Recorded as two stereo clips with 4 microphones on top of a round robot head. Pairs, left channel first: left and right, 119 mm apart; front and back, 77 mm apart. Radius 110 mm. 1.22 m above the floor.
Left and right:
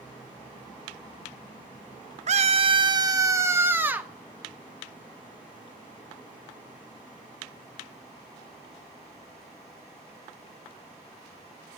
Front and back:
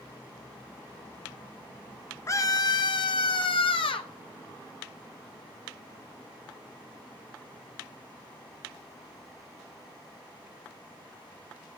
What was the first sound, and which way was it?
A scream, 60° right.